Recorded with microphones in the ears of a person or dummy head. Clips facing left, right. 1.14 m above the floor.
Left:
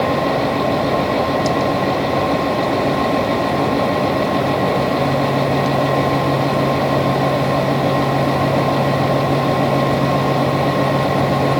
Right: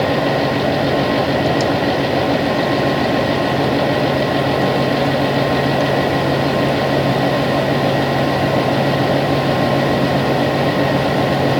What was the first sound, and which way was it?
Only background noise.